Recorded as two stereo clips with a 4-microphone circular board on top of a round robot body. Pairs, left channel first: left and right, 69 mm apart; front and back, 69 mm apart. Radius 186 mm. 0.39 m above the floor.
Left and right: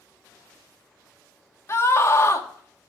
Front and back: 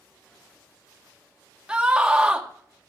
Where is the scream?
110° left, 1.6 m.